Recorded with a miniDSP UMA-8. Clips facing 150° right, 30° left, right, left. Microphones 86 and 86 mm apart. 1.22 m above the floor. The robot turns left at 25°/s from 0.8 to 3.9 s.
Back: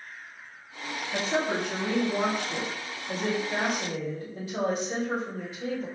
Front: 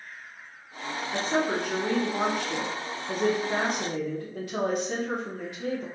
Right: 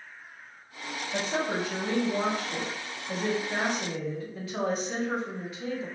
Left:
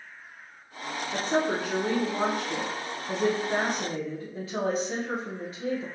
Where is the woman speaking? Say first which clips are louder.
Front 1 dB, left 3 dB; 110° left, 0.9 m; by 5.9 s 40° left, 0.9 m.